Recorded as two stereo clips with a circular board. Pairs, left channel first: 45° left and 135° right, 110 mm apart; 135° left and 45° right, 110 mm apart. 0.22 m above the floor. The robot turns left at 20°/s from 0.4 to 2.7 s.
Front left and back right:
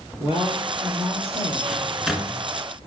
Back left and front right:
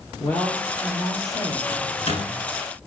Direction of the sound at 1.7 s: 145° left.